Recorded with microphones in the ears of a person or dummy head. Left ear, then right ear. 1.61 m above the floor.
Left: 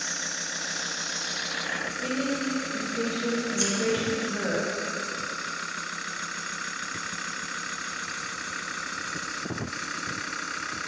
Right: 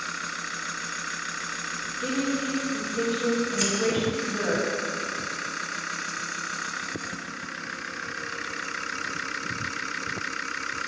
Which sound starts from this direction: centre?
A woman speaking, at 2.0 s.